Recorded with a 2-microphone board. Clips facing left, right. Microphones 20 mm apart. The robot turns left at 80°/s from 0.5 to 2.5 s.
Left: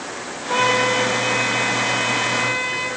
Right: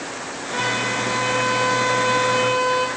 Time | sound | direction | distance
0.5 | a trumpet | 60° left | 5 m